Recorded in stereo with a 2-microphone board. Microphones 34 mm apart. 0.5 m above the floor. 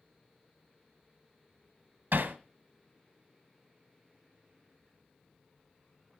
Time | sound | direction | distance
2.1 | hammering | 75° right (ahead or behind) | 1.1 m